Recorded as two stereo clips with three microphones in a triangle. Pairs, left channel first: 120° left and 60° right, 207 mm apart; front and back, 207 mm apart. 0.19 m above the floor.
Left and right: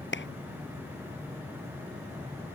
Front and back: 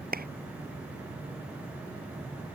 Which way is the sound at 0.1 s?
140° left.